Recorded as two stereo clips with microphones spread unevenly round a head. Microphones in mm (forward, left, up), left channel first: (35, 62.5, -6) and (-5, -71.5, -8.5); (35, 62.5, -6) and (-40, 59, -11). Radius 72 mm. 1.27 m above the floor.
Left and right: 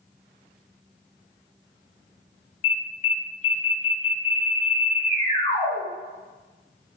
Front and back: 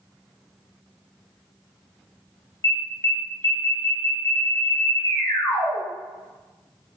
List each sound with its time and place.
2.6 s an alarm: 35° left, 1.5 m